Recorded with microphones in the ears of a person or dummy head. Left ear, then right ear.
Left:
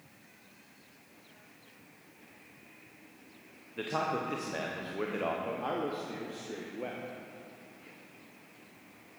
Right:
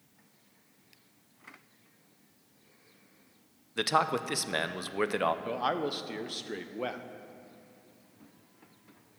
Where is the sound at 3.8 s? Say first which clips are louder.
Right 5 dB; 60° right (ahead or behind), 0.6 m.